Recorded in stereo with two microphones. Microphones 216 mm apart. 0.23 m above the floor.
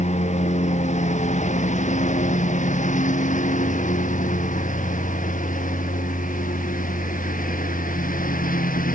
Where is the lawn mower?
35° left (ahead or behind); by 9.0 s 45° left (ahead or behind).